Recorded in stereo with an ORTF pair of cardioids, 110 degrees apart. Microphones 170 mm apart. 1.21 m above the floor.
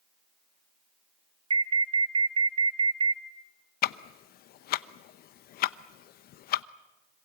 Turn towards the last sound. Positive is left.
turn(degrees=65)